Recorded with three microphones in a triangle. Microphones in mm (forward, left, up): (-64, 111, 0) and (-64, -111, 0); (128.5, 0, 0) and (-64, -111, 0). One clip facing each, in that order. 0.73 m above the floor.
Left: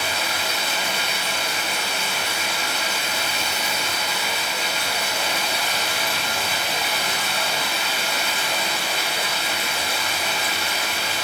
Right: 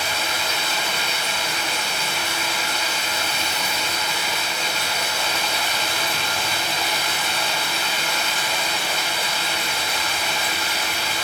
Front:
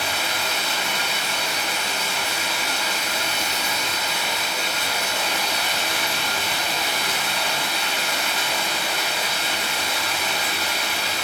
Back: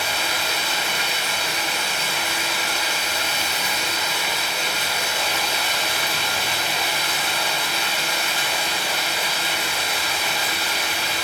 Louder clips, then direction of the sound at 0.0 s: Even, even; 75° left.